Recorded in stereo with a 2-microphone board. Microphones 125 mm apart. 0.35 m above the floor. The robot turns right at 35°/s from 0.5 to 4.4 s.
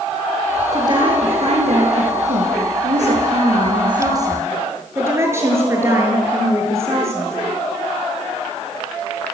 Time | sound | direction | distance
0.7 | a woman speaking | 150° right | 6.5 m